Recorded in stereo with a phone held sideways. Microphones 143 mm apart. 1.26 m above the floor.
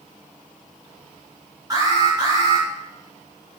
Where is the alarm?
25° right (ahead or behind), 3 m.